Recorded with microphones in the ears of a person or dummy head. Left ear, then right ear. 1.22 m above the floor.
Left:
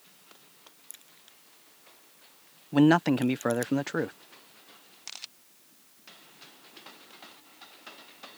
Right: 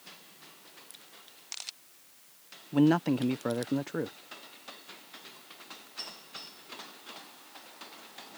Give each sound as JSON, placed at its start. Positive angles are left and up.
{"t": 0.9, "sound": "a crack", "side_deg": 35}
{"t": 2.7, "sound": "a man speaking", "side_deg": 35}